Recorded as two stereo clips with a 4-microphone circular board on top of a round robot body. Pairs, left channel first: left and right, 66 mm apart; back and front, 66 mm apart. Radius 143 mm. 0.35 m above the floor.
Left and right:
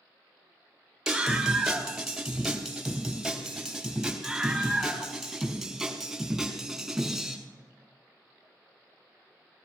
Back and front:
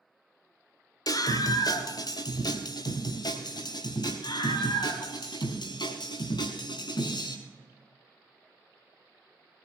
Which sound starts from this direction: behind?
A scream, at 1.1 s.